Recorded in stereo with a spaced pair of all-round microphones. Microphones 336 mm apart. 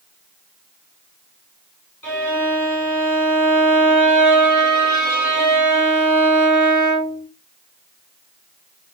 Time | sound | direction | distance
2.0 | a violin | 70° left (ahead or behind) | 1.8 m